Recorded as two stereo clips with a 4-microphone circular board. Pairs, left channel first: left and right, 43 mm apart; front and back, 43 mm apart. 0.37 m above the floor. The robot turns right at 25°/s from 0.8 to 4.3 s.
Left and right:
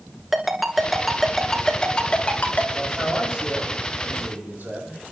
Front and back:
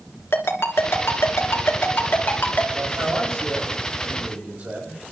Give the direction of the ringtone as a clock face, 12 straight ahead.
12 o'clock.